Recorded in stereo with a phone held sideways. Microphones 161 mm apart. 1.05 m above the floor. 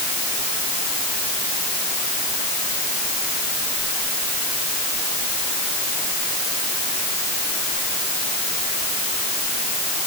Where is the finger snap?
I don't hear a finger snap.